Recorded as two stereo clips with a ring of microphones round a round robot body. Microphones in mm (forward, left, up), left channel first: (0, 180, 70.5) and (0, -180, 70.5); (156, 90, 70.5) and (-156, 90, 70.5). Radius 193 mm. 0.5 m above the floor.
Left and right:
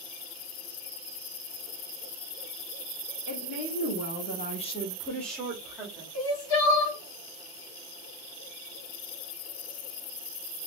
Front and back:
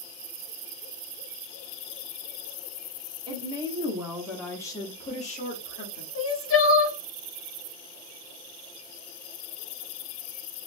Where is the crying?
50° left, 0.9 m.